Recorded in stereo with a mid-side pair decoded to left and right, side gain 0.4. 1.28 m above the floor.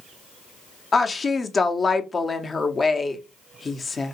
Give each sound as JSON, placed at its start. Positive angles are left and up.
{"t": 0.9, "sound": "a woman speaking", "azimuth_deg": 35, "distance_m": 0.7}